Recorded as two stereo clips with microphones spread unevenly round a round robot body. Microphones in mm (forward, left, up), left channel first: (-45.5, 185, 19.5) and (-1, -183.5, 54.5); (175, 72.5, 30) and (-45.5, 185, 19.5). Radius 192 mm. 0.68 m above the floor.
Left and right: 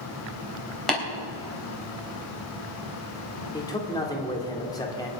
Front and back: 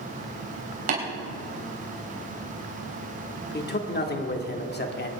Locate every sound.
0.9 s tapping: 175° right, 3.5 m
3.5 s a man speaking: 20° left, 2 m